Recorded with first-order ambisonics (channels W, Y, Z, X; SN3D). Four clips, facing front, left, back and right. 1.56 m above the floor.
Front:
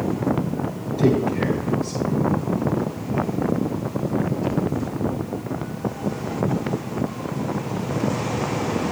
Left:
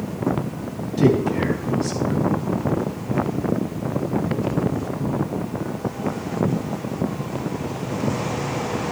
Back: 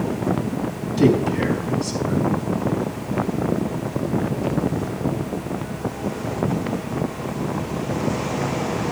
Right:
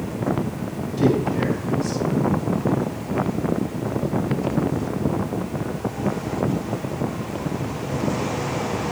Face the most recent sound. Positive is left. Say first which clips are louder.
# left 2 dB, back 2 dB
turn(degrees=175)